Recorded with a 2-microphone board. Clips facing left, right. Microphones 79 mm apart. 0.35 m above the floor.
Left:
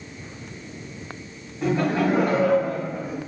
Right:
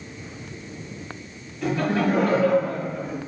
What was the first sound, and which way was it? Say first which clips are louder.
Laughter: left 1 dB; 25° left (ahead or behind).